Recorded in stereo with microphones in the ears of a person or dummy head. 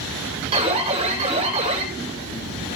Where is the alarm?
30° right (ahead or behind), 6 m.